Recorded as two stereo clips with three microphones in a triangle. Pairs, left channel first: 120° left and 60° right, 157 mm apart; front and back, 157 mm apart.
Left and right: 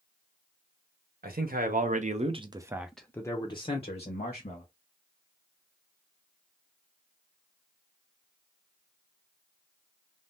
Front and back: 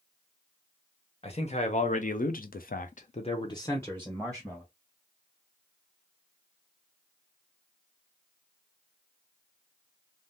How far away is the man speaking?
About 1.1 m.